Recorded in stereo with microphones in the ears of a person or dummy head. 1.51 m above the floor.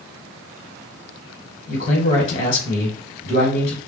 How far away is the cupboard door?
I don't hear a cupboard door.